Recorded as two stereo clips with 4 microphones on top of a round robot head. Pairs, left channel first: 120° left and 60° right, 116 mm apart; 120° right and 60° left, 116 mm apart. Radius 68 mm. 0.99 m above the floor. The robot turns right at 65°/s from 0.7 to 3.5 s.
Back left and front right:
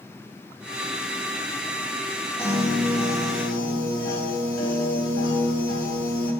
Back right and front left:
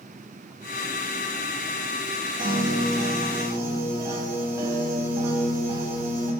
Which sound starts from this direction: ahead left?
A piano, at 2.4 s.